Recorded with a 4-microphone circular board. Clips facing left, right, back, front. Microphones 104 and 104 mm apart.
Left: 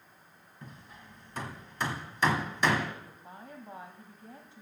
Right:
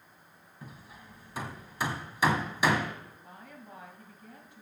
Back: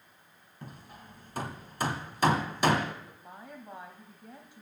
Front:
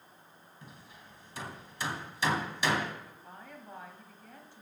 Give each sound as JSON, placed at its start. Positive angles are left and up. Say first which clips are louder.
{"t": 0.6, "sound": "hammering", "louder": "right 1 dB, back 6 dB", "azimuth_deg": -170, "distance_m": 1.3}
{"t": 3.1, "sound": "a woman speaking", "louder": "left 2 dB, back 2 dB", "azimuth_deg": 120, "distance_m": 1.4}